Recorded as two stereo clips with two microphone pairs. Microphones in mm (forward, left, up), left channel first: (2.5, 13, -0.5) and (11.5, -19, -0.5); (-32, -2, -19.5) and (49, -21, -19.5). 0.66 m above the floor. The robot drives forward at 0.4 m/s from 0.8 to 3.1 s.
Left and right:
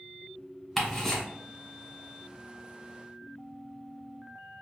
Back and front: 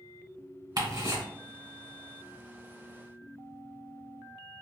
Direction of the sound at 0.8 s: 15° left.